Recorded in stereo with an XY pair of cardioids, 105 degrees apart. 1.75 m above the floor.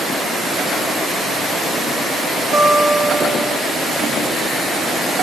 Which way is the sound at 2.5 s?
45° right.